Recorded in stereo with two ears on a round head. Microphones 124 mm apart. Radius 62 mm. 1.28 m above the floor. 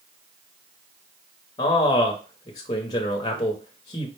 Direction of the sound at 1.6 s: 30° left (ahead or behind).